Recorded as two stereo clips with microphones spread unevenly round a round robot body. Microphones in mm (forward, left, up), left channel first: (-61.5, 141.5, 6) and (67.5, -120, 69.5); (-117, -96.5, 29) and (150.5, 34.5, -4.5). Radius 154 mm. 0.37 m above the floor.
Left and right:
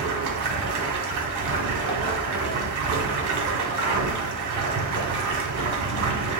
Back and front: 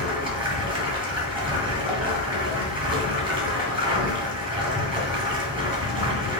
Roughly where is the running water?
Ahead right.